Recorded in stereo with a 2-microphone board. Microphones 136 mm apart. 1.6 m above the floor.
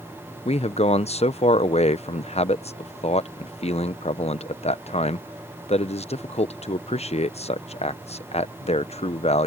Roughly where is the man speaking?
Left.